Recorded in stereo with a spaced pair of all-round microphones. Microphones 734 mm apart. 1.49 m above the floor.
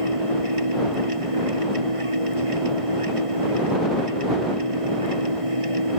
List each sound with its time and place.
0.0 s a machine running: 45° right (ahead or behind)